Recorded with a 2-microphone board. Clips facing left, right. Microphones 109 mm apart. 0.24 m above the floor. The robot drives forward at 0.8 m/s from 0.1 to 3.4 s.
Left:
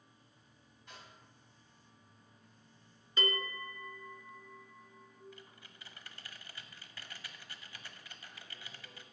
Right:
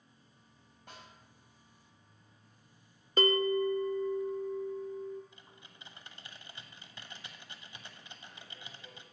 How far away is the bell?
About 0.5 m.